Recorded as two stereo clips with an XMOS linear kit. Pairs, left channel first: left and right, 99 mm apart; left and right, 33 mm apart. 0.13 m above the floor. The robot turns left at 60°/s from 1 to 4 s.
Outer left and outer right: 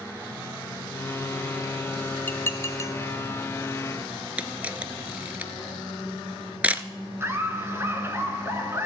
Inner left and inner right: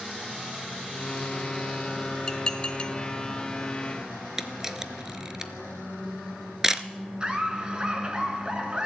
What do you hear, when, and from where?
2.3 s dishes clattering: 20° left (ahead or behind), 0.8 m; by 2.9 s 30° left (ahead or behind), 0.8 m
4.4 s a camera shutter: 15° right (ahead or behind), 0.7 m
7.2 s laughter: 25° right (ahead or behind), 1.7 m